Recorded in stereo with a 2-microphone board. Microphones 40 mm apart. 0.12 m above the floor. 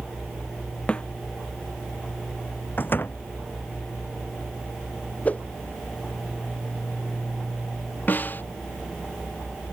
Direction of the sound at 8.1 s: 40° left (ahead or behind).